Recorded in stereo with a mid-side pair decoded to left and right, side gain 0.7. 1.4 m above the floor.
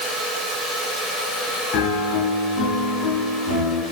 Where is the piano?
65° left, 3.5 m.